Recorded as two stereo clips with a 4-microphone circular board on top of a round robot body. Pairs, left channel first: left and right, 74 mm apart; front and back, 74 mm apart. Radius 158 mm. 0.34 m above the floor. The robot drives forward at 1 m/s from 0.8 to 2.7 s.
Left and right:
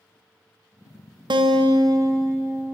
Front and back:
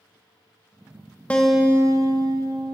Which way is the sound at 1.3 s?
75° right.